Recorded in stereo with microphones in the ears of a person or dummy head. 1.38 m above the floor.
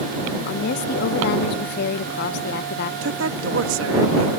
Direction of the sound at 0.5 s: 60° left (ahead or behind).